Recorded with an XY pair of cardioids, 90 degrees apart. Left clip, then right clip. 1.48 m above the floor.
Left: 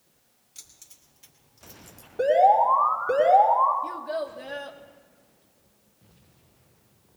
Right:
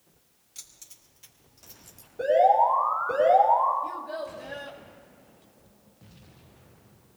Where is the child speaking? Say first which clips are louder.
Left 3 dB; 50° left, 2 m.